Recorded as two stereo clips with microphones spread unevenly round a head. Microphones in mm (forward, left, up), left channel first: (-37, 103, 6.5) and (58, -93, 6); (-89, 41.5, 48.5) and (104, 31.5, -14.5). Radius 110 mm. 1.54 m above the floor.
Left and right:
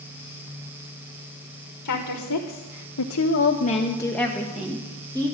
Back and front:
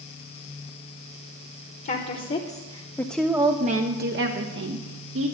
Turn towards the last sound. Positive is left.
turn(degrees=10)